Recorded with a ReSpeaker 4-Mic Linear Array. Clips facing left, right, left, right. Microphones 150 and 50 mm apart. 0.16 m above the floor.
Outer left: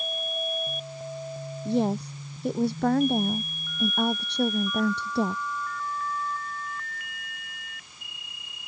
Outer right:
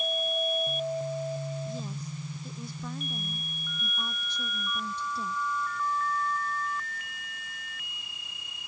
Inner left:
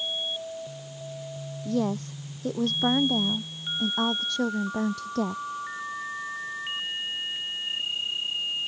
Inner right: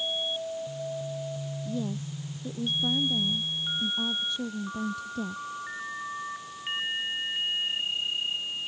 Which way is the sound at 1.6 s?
70° left (ahead or behind).